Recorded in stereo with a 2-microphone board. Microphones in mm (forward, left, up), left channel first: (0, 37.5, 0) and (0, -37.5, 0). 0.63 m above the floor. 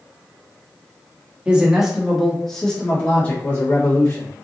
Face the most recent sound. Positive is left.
turn(degrees=30)  # may be behind; listen again after turning